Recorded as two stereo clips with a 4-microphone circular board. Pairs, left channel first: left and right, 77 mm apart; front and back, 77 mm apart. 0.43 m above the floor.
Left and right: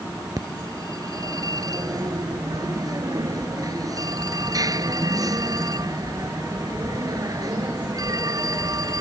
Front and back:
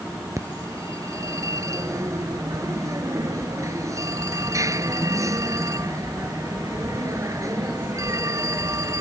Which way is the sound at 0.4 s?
130° right.